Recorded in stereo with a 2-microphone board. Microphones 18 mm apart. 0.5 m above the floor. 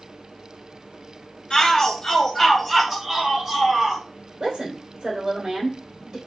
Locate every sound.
1.5 s a shout: 50° left (ahead or behind), 1.3 m; by 4.0 s 40° right (ahead or behind), 1.4 m
4.4 s a woman speaking: 45° right (ahead or behind), 1.9 m